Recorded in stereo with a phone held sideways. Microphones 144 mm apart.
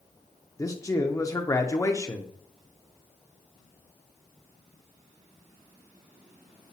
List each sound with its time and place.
0.6 s a man speaking: 25° left (ahead or behind), 0.5 m